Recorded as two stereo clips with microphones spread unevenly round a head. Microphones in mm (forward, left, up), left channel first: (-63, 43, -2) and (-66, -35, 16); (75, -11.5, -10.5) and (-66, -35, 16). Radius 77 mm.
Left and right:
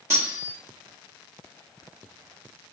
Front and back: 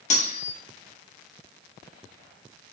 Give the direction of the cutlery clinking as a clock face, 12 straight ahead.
1 o'clock.